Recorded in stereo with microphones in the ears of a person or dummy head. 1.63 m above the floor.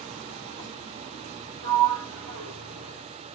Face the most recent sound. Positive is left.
turn(degrees=-75)  # may be behind; listen again after turning